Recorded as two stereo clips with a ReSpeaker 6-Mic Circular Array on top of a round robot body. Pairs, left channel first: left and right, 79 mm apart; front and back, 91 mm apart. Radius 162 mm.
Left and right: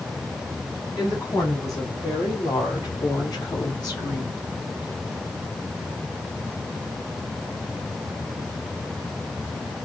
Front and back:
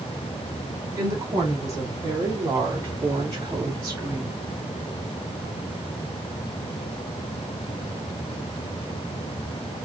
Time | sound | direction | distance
1.0 | a woman speaking | 130° left | 3.5 m